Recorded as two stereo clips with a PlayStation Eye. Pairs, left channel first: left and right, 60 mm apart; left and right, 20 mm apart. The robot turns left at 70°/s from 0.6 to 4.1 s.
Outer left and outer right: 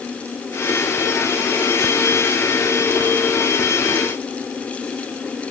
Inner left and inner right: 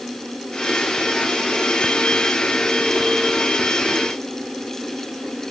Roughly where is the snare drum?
No snare drum in this recording.